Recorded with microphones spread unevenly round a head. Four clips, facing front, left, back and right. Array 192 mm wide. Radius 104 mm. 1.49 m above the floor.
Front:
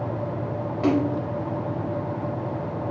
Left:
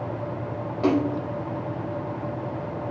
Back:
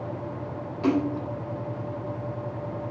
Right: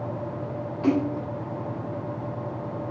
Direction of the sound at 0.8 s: 75° left.